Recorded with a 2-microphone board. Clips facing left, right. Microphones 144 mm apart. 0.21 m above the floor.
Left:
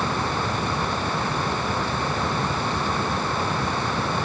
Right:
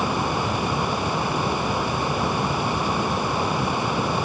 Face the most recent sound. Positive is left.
No sound to turn to.